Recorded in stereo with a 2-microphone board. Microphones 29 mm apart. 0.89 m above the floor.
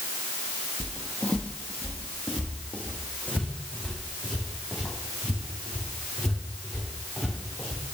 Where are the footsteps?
40° left (ahead or behind), 1.2 m; by 7.8 s 65° left (ahead or behind), 4.5 m.